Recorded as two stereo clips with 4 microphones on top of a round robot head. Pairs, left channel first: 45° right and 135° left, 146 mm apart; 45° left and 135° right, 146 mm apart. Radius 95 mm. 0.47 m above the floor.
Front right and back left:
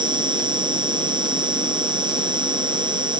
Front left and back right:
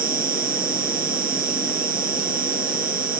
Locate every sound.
0.0 s an insect: 165° right